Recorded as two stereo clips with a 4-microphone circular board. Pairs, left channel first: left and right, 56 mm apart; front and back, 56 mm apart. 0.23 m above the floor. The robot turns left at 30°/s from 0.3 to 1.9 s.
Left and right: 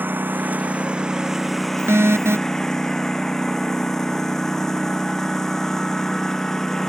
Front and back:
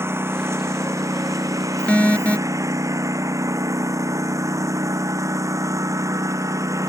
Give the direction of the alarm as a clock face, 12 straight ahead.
2 o'clock.